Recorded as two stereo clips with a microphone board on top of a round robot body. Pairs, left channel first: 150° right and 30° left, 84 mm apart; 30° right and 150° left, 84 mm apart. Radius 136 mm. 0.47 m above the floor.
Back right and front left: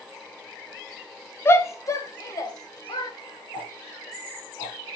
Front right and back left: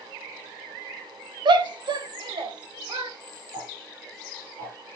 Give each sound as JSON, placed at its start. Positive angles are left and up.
{"t": 1.4, "sound": "a shout", "azimuth_deg": 150, "distance_m": 2.0}
{"t": 3.5, "sound": "ticking", "azimuth_deg": 165, "distance_m": 5.0}